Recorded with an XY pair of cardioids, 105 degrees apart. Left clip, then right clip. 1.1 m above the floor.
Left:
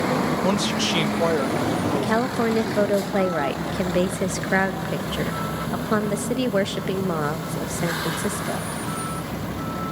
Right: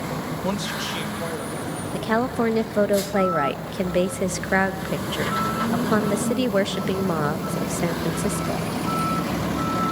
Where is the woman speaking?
10° right, 0.9 m.